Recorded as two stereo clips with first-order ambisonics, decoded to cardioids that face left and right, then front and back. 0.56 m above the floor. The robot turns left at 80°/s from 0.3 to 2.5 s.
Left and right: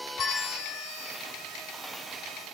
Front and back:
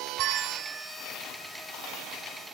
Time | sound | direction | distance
0.2 | a bell | 145° left | 1.2 m